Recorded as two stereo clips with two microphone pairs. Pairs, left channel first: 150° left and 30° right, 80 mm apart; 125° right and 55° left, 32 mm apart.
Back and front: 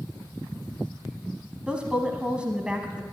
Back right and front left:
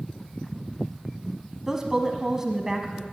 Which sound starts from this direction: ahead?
A woman speaking, at 1.7 s.